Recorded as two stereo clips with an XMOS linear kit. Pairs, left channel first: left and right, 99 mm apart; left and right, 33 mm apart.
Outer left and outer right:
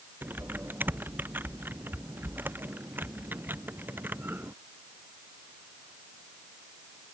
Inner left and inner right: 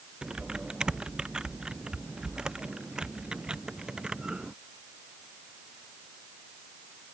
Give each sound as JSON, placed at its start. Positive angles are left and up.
{"t": 0.2, "sound": "typing on a keyboard", "side_deg": -20}